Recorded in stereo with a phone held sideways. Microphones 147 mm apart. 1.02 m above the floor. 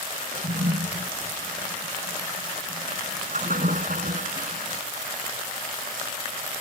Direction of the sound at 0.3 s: 60° right (ahead or behind).